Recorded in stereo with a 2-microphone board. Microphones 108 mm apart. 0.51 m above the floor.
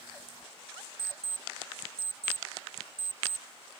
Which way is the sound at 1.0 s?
30° left (ahead or behind).